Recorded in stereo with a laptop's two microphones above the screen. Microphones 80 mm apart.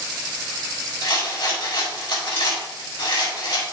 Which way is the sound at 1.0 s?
80° left.